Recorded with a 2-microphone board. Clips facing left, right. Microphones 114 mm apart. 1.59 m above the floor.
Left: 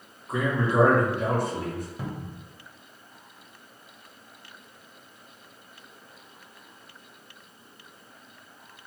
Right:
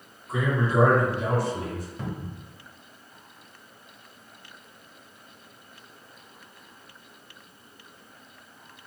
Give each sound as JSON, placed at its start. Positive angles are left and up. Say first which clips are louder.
{"t": 0.3, "sound": "a man speaking", "louder": "even", "side_deg": 50, "distance_m": 1.3}
{"t": 2.0, "sound": "a cupboard door", "louder": "right 1 dB", "side_deg": 10, "distance_m": 0.5}